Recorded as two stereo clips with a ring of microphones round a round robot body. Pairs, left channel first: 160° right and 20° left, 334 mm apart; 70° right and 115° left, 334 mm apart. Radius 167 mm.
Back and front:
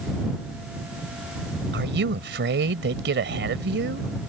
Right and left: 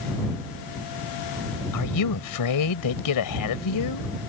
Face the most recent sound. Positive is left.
turn(degrees=-35)